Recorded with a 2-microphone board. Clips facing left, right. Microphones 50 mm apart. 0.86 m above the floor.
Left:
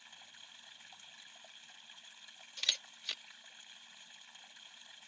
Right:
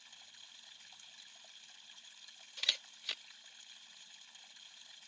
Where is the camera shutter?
10° right (ahead or behind).